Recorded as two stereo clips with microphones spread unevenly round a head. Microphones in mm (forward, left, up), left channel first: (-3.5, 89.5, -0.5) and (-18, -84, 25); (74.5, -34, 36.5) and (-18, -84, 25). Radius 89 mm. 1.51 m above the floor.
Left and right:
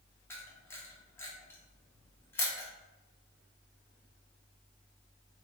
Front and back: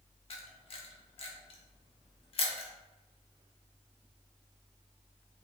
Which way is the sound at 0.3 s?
5° left.